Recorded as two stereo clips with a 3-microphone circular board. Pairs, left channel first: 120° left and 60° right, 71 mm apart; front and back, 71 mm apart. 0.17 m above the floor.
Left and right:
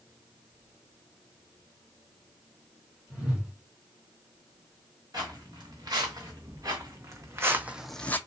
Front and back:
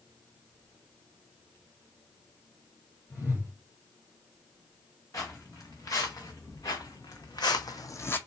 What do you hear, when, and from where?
3.1 s a whoosh: 5° left, 2.5 m
5.1 s footsteps: 40° right, 2 m; by 8.2 s 55° left, 0.5 m